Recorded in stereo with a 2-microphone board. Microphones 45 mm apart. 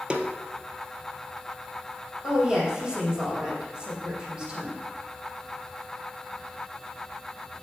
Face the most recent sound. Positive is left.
turn(degrees=-20)  # may be behind; listen again after turning